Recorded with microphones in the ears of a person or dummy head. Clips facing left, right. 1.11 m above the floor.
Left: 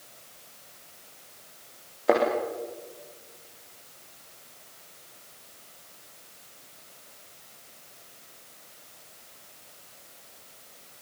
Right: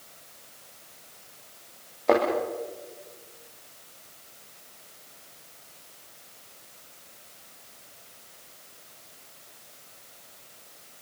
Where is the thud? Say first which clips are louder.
Right 1 dB; 5° left (ahead or behind), 8 m.